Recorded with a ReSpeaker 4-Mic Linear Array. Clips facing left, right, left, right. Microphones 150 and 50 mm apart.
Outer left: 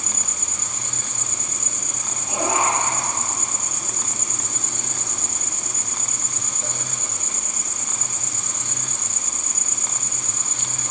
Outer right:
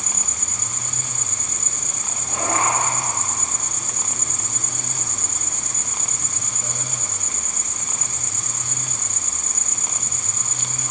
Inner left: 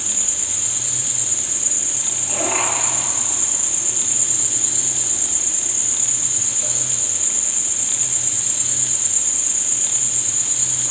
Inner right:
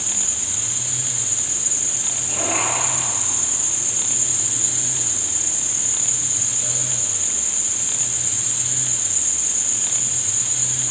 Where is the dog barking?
No dog barking in this recording.